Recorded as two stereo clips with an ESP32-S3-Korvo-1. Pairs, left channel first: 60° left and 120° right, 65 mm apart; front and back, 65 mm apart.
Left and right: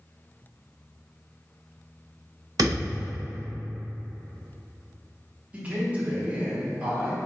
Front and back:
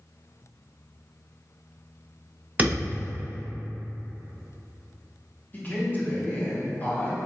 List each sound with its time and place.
2.6 s a thud: 115° right, 1.0 m
5.5 s a man speaking: 55° right, 0.9 m